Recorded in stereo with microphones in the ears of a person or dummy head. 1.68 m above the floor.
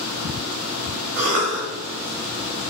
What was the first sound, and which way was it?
A cough, 45° right (ahead or behind).